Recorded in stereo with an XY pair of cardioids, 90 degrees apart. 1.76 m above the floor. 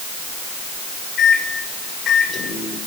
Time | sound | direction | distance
1.2 | a microwave | 50° left | 6 m